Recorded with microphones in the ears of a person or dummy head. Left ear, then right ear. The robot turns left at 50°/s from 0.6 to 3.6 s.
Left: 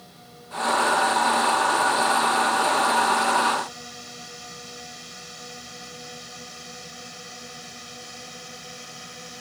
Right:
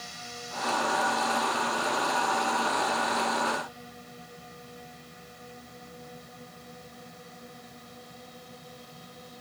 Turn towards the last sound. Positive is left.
turn(degrees=60)  # may be behind; listen again after turning